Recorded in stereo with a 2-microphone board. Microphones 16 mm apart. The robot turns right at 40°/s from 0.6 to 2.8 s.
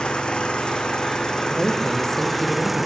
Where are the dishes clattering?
I don't hear dishes clattering.